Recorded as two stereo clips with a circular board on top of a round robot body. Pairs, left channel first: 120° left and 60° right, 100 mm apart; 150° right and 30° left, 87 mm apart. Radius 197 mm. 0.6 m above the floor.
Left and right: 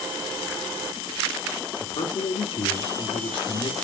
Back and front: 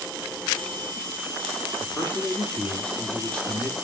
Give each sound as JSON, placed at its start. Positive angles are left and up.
{"t": 1.8, "sound": "a man speaking", "azimuth_deg": 135, "distance_m": 2.5}